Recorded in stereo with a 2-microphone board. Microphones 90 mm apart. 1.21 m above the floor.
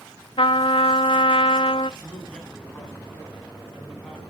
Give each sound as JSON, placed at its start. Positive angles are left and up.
{"t": 0.4, "sound": "a trumpet", "side_deg": 75, "distance_m": 0.5}
{"t": 2.0, "sound": "a man speaking", "side_deg": 10, "distance_m": 8.0}